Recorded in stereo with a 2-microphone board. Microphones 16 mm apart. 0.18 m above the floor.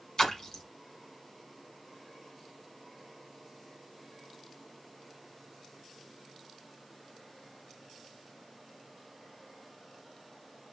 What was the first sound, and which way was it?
A splash, 35° left (ahead or behind).